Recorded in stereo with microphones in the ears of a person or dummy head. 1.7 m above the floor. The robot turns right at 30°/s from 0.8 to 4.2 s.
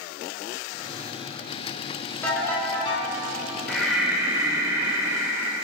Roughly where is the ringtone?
Centre.